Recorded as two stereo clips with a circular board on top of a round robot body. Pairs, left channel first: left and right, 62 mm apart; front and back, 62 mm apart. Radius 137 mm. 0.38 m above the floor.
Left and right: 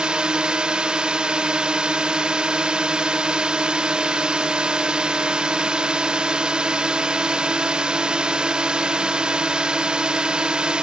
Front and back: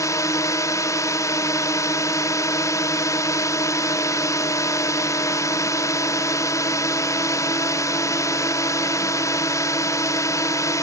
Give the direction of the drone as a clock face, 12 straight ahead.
1 o'clock.